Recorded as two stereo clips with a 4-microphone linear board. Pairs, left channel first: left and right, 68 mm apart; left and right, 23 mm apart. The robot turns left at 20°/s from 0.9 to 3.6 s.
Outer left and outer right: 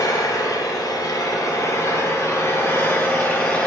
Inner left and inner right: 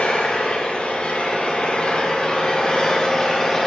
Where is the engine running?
75° left, 5 m; by 3.7 s 25° left, 5 m.